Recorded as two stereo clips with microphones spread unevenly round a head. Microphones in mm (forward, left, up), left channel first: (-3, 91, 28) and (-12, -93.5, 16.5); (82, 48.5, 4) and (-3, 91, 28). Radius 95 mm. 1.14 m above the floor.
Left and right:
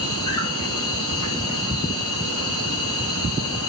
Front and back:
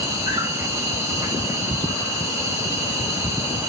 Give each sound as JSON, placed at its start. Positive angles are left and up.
{"t": 0.0, "sound": "an insect", "azimuth_deg": 95, "distance_m": 9.0}